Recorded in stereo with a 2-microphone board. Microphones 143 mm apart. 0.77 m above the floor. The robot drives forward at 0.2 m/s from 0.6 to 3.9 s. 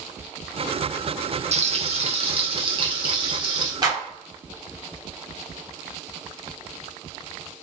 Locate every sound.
1.5 s frying: 55° right (ahead or behind), 0.7 m; by 3.7 s 35° right (ahead or behind), 1.0 m
3.8 s a clap: 30° right (ahead or behind), 0.9 m